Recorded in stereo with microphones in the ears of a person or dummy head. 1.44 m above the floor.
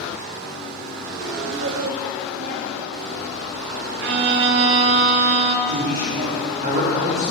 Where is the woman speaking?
40° right (ahead or behind), 0.6 m; by 3.9 s 70° right (ahead or behind), 2.5 m.